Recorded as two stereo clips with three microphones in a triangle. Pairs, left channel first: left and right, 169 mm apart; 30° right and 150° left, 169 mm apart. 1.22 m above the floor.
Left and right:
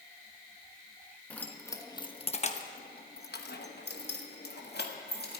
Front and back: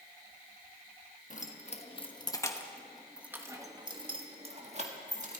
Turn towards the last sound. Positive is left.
turn(degrees=110)